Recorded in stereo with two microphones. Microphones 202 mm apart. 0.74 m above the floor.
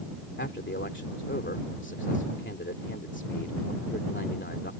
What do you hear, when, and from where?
0.4 s a man speaking: 70° left (ahead or behind)